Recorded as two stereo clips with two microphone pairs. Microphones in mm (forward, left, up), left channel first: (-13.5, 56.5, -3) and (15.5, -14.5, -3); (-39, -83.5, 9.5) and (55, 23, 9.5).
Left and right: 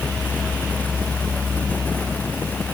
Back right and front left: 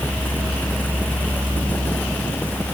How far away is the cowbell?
No cowbell in this recording.